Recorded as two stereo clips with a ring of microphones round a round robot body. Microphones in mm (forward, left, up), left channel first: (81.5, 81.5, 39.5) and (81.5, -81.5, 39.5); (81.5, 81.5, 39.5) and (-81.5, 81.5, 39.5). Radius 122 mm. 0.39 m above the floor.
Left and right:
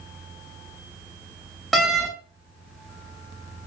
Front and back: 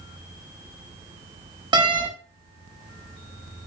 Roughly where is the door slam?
Behind.